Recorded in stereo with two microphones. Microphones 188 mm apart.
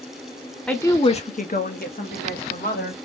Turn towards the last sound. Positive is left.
turn(degrees=45)  # may be behind; listen again after turning